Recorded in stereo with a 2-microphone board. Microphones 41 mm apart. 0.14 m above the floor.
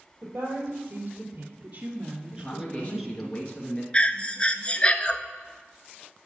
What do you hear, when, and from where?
0.2 s a woman speaking: 45° right (ahead or behind), 3.5 m; by 3.3 s 10° left (ahead or behind), 1.8 m
2.3 s a man speaking: 30° left (ahead or behind), 2 m
3.9 s breathing: 30° left (ahead or behind), 0.7 m